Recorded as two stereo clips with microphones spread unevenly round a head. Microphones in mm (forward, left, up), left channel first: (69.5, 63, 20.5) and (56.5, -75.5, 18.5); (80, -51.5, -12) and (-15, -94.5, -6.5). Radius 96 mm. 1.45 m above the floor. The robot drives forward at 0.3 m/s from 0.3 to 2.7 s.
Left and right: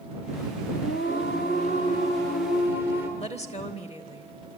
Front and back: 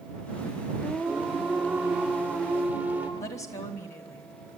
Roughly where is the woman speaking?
Ahead left.